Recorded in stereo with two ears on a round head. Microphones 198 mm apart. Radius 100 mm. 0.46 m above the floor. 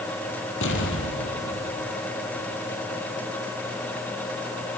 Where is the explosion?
55° left (ahead or behind), 4.5 m.